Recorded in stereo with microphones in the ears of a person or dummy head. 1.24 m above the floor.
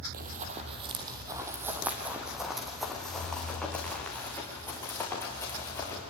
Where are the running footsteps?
40° right (ahead or behind), 2 m; by 6.0 s 20° left (ahead or behind), 6.5 m.